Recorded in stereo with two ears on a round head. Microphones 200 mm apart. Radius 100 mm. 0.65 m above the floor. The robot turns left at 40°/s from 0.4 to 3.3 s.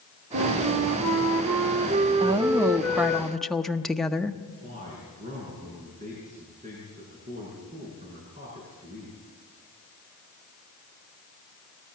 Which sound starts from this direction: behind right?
A woman speaking, at 2.2 s.